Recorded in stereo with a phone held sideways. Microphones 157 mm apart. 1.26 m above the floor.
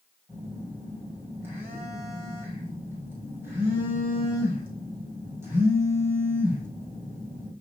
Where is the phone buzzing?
15° right (ahead or behind), 7 m.